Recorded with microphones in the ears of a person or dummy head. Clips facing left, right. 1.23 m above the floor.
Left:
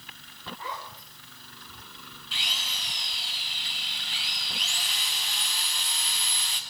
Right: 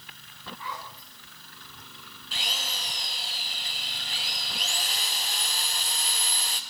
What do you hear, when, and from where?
0.6 s a zipper: 35° left (ahead or behind), 6 m
2.3 s a drill: 40° right (ahead or behind), 1.9 m